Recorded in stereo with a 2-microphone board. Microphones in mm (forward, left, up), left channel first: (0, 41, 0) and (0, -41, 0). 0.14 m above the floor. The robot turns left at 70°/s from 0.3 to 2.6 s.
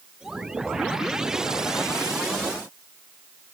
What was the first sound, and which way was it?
Only background noise.